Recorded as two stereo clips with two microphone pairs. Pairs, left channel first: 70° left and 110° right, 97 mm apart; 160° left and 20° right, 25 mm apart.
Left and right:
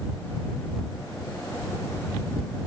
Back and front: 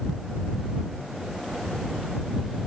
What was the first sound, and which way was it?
Only background noise.